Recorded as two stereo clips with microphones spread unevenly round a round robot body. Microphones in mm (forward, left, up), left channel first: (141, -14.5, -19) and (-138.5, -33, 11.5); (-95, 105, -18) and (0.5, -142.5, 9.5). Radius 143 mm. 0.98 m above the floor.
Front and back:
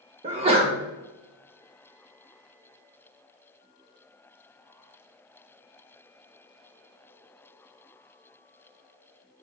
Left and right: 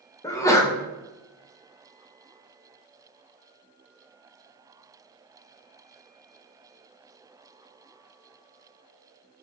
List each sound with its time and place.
0.2 s a sneeze: 140° left, 0.5 m